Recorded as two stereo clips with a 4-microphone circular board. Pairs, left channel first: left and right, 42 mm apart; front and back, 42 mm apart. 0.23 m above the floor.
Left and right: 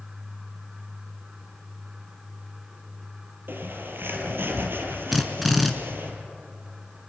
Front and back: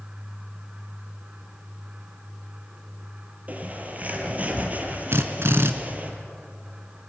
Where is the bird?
125° right, 4 m.